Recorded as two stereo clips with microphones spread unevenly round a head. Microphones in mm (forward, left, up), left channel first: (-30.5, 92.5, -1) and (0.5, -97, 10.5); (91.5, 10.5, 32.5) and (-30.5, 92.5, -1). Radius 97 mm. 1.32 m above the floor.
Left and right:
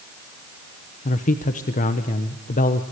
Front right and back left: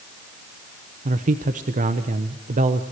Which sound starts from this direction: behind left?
A man speaking, at 1.1 s.